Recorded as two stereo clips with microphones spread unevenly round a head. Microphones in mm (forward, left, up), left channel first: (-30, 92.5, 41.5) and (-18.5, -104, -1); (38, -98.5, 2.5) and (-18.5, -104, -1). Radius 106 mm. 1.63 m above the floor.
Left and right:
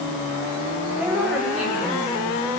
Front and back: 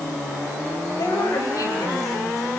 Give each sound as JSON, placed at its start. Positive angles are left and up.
{"t": 1.0, "sound": "a woman speaking", "azimuth_deg": 0, "distance_m": 9.0}